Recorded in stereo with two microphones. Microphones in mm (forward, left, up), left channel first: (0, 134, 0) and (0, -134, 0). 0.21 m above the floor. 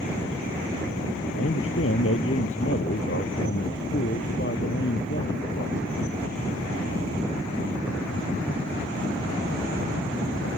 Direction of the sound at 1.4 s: 50° left (ahead or behind).